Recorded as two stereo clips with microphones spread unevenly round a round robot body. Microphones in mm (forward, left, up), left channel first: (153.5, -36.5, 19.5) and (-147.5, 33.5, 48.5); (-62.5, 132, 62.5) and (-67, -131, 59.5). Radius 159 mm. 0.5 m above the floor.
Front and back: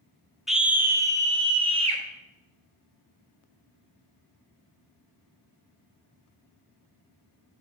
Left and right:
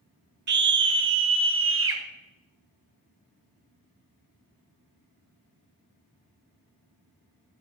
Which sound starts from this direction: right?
A scream, at 0.5 s.